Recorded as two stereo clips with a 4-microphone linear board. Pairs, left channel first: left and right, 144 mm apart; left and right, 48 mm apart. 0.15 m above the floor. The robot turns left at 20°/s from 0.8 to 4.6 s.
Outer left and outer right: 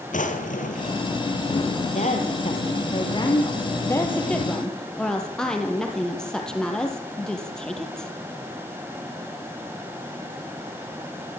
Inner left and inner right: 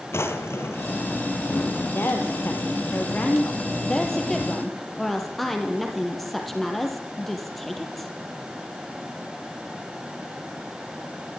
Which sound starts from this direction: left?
A drawer, at 0.1 s.